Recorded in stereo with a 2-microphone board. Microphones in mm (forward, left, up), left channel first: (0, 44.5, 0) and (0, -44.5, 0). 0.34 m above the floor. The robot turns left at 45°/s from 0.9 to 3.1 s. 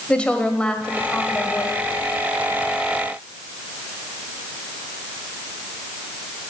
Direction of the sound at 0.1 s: 160° left.